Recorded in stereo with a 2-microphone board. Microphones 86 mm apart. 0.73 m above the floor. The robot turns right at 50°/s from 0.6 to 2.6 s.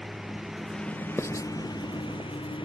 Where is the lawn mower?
Straight ahead; by 2.7 s 100° left.